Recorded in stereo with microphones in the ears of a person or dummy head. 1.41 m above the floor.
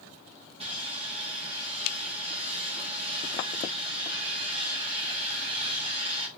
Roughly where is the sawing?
Right.